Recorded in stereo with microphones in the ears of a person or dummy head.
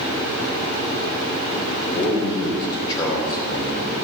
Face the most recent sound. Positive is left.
turn(degrees=25)  # may be behind; listen again after turning